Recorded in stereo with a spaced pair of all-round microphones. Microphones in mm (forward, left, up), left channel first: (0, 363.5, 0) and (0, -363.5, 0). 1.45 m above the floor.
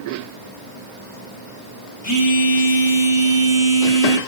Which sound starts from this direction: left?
A phone buzzing, at 2.0 s.